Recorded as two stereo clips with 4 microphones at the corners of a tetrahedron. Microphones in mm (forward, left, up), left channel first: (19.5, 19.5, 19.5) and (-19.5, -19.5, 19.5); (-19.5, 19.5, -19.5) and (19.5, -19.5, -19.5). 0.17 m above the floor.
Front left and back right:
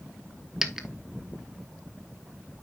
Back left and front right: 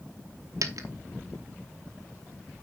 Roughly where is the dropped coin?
Ahead right.